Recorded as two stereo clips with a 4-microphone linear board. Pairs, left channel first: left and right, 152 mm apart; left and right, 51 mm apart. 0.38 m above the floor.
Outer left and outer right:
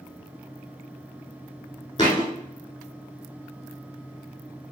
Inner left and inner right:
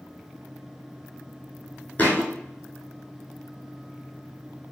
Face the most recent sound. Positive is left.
turn(degrees=30)  # may be behind; listen again after turning